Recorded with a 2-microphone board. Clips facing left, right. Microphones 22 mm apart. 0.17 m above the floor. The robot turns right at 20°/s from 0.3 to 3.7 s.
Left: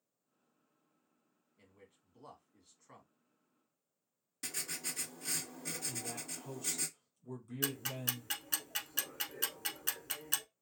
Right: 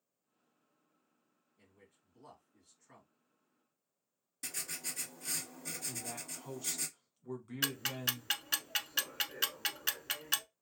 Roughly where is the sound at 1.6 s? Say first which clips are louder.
Left 2 dB; left.